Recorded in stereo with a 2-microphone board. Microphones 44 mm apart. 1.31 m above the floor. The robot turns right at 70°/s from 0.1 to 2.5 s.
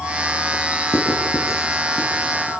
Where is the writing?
45° left (ahead or behind), 5.5 m; by 2.5 s 25° left (ahead or behind), 5.5 m.